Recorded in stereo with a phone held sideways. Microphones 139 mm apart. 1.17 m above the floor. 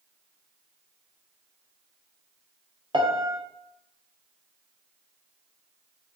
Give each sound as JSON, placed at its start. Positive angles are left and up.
{"t": 2.9, "sound": "a piano", "side_deg": -35, "distance_m": 0.6}